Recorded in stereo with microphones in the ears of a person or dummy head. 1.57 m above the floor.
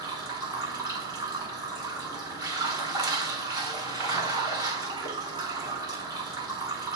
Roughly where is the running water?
Right.